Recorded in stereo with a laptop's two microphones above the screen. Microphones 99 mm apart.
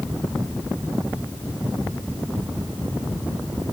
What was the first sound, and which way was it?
Only background noise.